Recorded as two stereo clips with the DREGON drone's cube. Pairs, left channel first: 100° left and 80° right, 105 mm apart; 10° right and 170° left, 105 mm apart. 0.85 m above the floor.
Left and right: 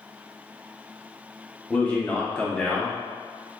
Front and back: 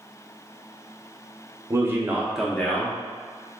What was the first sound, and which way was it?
A man speaking, 160° left.